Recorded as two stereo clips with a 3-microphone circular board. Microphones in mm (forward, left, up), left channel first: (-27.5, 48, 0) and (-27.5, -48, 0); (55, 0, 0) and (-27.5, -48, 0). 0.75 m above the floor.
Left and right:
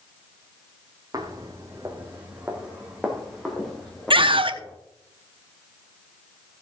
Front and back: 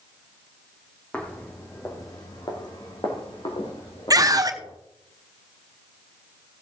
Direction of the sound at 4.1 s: 105° right.